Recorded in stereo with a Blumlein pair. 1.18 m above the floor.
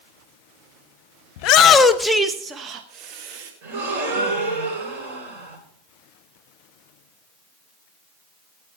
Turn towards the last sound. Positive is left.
turn(degrees=-45)